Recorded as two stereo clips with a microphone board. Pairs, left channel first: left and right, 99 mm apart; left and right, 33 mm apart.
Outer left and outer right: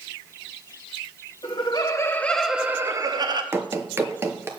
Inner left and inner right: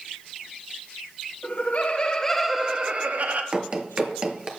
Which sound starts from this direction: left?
Laughter, at 1.4 s.